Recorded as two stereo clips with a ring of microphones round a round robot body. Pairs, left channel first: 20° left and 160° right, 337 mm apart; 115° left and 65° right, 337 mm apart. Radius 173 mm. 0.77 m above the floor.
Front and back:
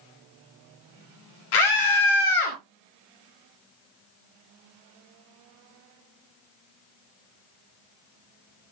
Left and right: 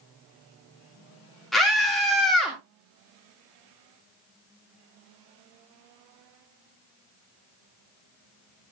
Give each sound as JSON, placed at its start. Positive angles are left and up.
{"t": 1.5, "sound": "a scream", "azimuth_deg": 25, "distance_m": 2.0}